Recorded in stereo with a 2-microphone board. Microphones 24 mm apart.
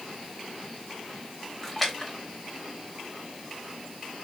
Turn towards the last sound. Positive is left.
turn(degrees=0)  # may be behind; listen again after turning